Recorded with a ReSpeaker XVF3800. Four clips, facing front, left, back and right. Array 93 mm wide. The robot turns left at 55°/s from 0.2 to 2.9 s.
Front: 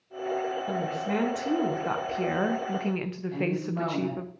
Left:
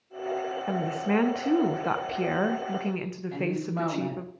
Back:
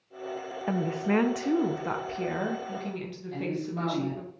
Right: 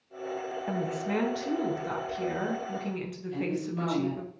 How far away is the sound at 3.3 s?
About 4.5 m.